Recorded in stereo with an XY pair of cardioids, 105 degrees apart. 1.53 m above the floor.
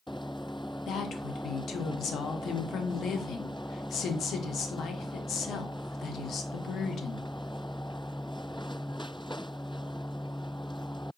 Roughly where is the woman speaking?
Ahead left.